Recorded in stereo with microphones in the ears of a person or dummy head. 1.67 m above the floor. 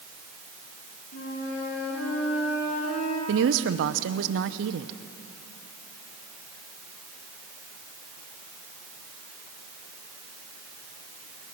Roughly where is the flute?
Left.